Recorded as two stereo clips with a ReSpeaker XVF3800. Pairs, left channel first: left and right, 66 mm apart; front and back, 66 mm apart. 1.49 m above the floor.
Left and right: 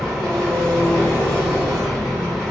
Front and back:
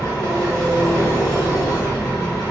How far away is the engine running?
About 1.9 m.